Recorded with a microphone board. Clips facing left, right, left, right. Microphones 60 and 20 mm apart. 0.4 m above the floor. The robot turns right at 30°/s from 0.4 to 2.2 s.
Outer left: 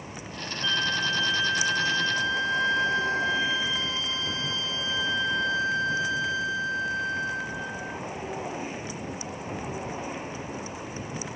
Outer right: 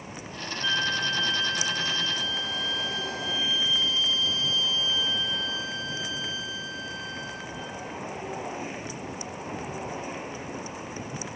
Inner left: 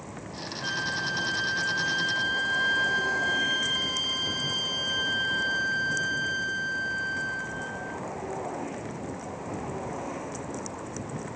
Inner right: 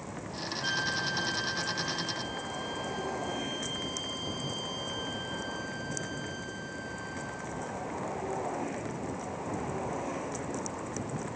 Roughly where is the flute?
Ahead.